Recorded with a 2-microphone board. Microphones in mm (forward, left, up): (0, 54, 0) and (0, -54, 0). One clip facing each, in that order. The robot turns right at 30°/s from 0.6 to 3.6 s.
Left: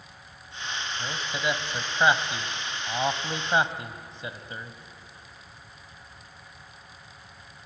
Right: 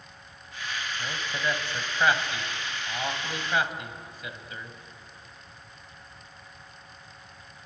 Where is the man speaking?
5° left (ahead or behind), 1.5 m; by 4.8 s 30° left (ahead or behind), 1.5 m.